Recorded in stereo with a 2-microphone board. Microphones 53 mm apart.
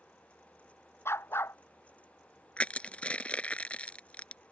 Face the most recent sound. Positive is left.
turn(degrees=25)  # may be behind; listen again after turning